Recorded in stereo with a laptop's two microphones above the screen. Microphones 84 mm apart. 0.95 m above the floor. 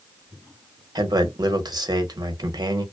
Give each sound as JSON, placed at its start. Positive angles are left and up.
{"t": 0.9, "sound": "a man speaking", "side_deg": -50, "distance_m": 0.8}